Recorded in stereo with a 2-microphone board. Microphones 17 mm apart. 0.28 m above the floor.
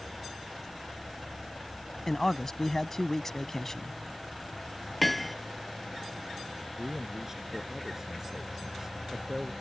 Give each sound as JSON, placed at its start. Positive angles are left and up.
{"t": 2.1, "sound": "a man speaking", "side_deg": 25}
{"t": 5.0, "sound": "hammering", "side_deg": 5}
{"t": 6.8, "sound": "a man speaking", "side_deg": -25}